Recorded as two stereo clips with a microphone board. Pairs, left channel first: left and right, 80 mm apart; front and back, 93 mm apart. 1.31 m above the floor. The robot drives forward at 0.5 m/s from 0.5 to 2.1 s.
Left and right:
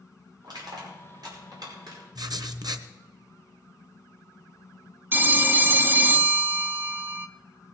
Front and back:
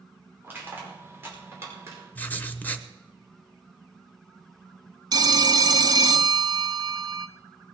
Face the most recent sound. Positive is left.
turn(degrees=-150)